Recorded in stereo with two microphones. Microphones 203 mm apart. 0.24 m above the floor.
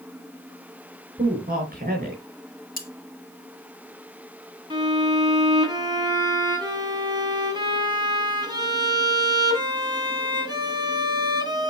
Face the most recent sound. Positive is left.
turn(degrees=-20)  # may be behind; listen again after turning